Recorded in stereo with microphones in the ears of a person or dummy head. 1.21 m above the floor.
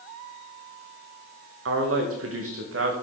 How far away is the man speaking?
About 0.9 m.